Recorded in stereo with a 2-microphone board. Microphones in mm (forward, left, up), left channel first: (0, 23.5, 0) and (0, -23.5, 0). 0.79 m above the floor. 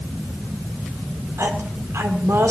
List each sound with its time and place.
1.4 s a woman speaking: 80° right, 1.8 m